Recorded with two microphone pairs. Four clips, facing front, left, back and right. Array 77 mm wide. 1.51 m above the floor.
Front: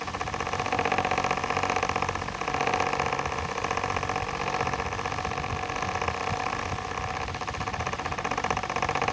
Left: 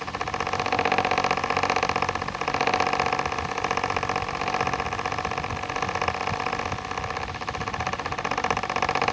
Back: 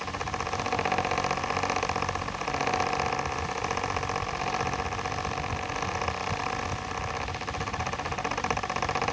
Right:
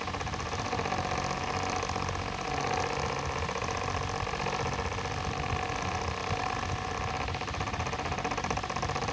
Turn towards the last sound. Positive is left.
No sound to turn to.